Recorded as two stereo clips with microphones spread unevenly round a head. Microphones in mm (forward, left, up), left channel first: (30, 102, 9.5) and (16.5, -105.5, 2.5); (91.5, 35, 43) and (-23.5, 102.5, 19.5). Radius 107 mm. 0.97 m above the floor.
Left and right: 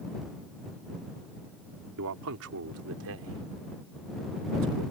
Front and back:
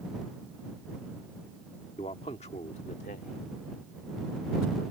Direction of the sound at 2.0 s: 95° right.